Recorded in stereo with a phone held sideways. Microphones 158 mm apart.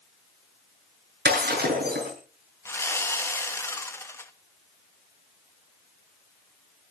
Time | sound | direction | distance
1.2 | breaking glass | 75° right (ahead or behind) | 8.5 m
2.6 | sawing | 15° left (ahead or behind) | 1.3 m